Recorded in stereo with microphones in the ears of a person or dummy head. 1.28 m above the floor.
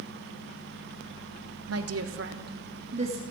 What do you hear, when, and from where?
1.7 s a woman speaking: 75° right (ahead or behind), 1.4 m; by 3.2 s 35° right (ahead or behind), 1.9 m